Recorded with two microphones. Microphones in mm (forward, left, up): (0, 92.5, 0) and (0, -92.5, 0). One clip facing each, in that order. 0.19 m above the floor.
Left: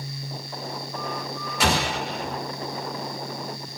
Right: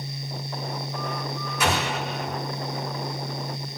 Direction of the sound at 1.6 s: 80° left.